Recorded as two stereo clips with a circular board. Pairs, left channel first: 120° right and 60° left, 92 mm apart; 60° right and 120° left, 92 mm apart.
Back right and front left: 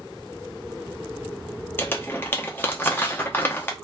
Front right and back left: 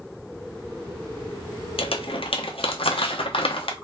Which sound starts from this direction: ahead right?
Crumpling, at 1.8 s.